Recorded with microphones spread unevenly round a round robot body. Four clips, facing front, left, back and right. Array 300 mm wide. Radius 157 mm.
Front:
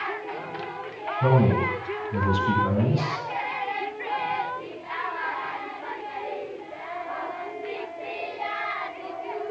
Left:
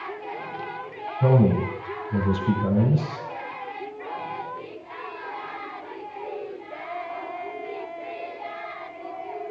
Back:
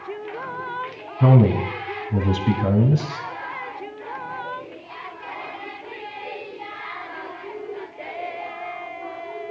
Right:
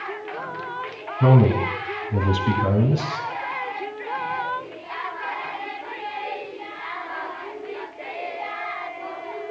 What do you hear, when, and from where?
1.2 s a man speaking: 150° right, 3.5 m